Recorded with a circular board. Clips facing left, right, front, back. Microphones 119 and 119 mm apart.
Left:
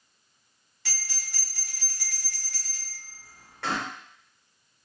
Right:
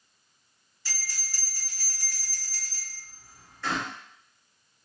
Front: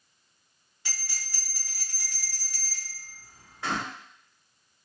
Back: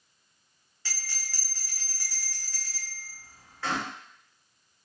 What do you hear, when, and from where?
0.8 s a bell: 70° left, 1.3 m